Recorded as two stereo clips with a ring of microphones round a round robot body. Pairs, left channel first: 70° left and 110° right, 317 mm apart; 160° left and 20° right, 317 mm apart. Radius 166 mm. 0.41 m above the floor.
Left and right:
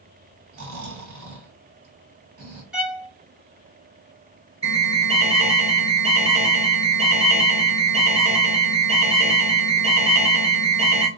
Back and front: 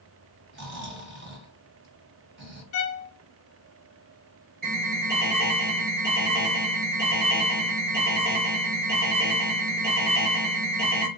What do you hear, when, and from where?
0.5 s snoring: 70° right, 1.5 m
2.7 s a violin: 160° left, 0.7 m
4.6 s an alarm: 60° right, 1.8 m